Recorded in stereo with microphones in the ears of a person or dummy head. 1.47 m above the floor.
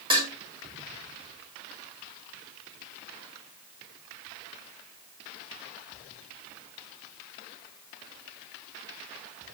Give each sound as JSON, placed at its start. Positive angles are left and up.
{"t": 0.1, "sound": "dishes clattering", "side_deg": -25, "distance_m": 3.5}